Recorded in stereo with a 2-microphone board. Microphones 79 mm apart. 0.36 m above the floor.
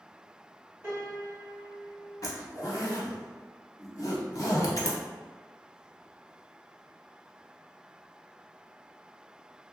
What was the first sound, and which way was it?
A piano, 30° right (ahead or behind).